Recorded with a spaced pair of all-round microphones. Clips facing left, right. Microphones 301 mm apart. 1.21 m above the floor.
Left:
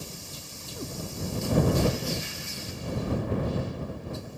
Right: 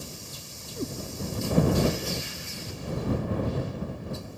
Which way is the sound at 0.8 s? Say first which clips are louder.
Right 5 dB; 25° right (ahead or behind).